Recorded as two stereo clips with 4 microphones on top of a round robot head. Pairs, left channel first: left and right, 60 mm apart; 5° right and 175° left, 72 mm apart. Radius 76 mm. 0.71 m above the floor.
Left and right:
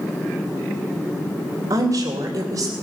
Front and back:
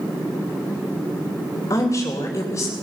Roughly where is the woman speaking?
Ahead right.